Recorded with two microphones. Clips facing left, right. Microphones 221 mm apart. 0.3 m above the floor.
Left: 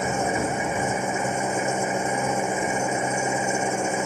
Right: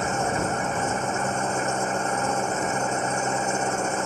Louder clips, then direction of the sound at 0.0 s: Left 1 dB; 10° left (ahead or behind).